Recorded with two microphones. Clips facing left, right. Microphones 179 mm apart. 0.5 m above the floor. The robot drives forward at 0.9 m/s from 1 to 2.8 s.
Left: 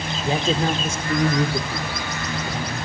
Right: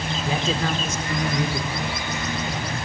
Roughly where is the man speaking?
Left.